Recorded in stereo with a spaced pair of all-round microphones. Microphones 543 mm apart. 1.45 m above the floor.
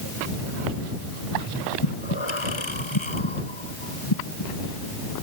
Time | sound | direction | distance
1.8 | breathing | 55° left (ahead or behind) | ?